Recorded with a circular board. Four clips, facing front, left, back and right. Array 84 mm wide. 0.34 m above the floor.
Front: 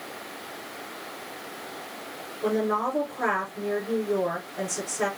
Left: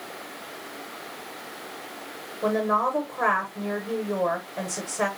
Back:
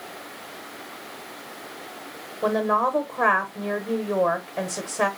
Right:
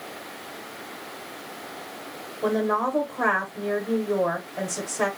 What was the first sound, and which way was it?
A woman speaking, 165° left.